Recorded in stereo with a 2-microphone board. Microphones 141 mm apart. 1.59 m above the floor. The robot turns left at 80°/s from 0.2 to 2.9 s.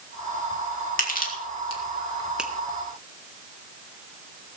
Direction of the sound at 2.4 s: 5° right (ahead or behind).